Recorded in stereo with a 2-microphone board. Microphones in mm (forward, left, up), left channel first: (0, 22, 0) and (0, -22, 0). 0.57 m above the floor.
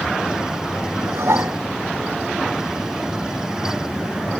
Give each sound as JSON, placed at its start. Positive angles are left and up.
{"t": 1.1, "sound": "dishes clattering", "side_deg": -80}